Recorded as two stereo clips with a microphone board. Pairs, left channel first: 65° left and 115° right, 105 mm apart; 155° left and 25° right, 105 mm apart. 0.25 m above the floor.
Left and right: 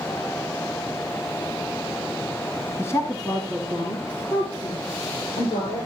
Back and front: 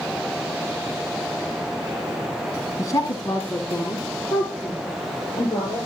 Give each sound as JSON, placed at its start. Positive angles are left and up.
{"t": 2.8, "sound": "a woman speaking", "azimuth_deg": 120, "distance_m": 1.4}